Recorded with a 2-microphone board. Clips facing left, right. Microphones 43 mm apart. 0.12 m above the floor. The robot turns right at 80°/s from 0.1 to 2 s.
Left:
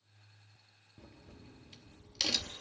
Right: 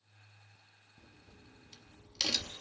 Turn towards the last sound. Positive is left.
turn(degrees=5)  # may be behind; listen again after turning